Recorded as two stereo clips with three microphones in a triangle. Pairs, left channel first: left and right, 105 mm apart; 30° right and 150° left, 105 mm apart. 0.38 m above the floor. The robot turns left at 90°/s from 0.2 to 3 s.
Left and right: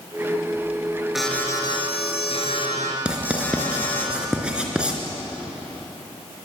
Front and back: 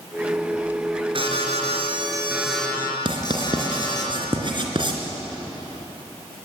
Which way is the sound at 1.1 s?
175° right.